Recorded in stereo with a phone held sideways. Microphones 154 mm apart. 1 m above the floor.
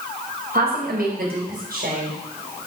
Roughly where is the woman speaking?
Right.